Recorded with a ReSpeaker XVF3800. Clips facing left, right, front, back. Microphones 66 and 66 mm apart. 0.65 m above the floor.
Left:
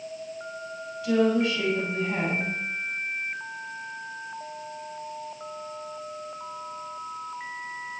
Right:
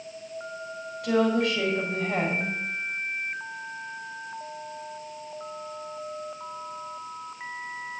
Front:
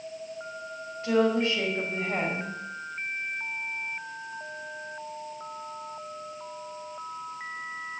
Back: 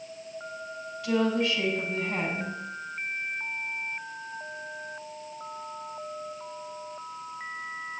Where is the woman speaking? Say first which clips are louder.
Left 1 dB, front 2 dB; 60° right, 4 m.